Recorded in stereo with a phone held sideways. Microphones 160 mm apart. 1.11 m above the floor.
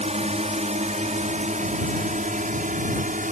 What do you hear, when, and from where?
0.0 s a drone: 45° right (ahead or behind); by 3.3 s 55° right (ahead or behind)